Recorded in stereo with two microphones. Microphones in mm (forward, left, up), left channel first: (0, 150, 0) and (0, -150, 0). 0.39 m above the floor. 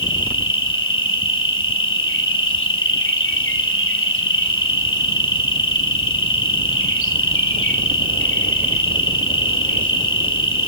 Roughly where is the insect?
Left.